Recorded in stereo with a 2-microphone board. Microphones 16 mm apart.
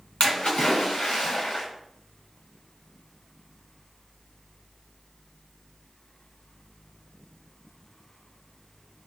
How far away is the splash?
About 2.5 m.